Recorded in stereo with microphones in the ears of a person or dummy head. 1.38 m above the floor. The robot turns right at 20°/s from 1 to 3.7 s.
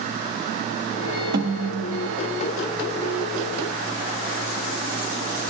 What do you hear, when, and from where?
1.3 s a snare drum: 45° right (ahead or behind), 1.6 m; by 2.2 s 60° right (ahead or behind), 1.6 m